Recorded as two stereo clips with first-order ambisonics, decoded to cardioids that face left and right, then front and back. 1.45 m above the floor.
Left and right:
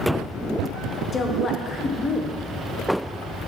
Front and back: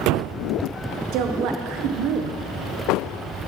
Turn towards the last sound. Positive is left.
turn(degrees=160)